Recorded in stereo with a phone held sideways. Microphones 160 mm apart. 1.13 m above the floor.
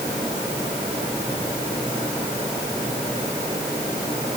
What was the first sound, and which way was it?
Only background noise.